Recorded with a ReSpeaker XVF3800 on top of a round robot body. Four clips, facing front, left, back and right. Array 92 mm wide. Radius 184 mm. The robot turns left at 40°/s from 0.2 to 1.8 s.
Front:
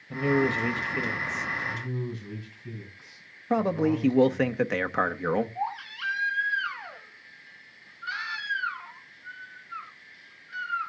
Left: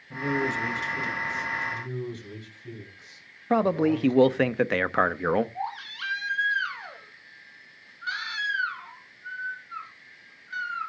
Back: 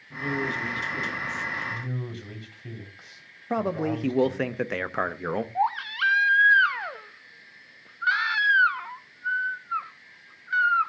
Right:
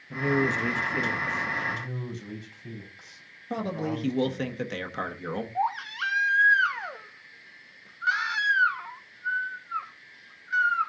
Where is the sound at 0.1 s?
15° right, 1.6 m; by 1.5 s 65° right, 1.6 m.